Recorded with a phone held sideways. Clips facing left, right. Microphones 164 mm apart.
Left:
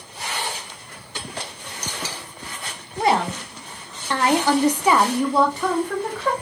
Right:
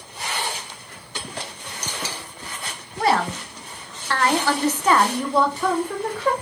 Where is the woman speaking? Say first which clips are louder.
Left 1 dB; 15° left (ahead or behind), 1.1 m; by 6.3 s 5° right (ahead or behind), 0.9 m.